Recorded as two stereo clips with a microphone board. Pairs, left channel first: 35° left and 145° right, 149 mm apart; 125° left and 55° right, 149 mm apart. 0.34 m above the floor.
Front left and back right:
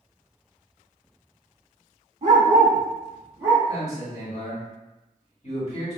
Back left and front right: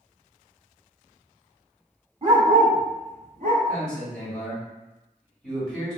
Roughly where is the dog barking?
Right.